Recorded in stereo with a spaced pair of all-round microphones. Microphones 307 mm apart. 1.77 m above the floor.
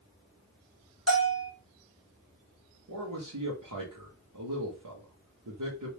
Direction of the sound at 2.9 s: 85° right.